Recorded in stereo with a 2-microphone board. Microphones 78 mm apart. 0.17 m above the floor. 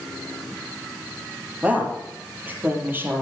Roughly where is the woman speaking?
Centre.